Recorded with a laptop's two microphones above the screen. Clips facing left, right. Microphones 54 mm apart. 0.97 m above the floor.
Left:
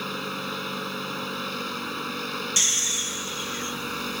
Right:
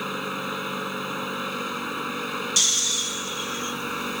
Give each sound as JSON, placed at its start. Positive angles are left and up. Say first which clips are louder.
{"t": 0.0, "sound": "a machine running", "louder": "right 2 dB", "side_deg": -10}
{"t": 2.6, "sound": "snoring", "louder": "right 2 dB", "side_deg": 30}